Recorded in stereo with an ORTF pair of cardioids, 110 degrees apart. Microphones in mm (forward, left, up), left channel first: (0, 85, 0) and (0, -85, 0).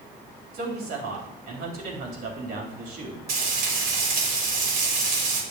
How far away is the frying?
About 3.5 m.